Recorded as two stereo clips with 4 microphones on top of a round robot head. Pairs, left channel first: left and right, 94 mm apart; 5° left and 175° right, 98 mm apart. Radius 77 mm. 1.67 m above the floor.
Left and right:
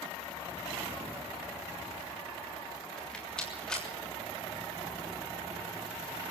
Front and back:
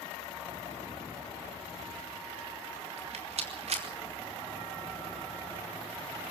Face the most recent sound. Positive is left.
turn(degrees=175)